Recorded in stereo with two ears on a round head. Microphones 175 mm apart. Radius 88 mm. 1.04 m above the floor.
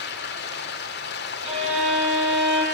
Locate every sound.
0.0 s running water: 60° left (ahead or behind), 2 m
1.4 s a violin: 35° right (ahead or behind), 6 m